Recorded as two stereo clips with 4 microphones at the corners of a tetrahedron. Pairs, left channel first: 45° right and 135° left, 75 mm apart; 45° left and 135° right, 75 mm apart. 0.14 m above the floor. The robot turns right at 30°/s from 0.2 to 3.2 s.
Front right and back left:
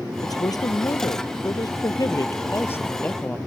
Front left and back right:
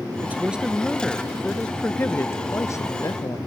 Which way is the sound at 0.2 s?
70° right.